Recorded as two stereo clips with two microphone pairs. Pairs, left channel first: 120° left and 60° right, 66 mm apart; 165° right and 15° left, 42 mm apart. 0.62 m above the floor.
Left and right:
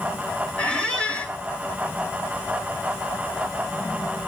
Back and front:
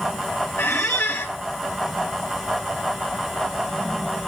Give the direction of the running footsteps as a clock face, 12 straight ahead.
I don't hear running footsteps.